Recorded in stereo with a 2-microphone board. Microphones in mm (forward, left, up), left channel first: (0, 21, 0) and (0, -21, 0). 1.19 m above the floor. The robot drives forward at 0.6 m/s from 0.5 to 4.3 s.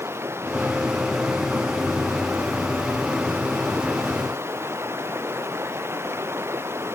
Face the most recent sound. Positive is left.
turn(degrees=-90)